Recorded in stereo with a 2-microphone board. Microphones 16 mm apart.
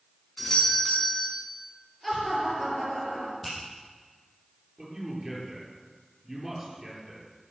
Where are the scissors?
I don't hear scissors.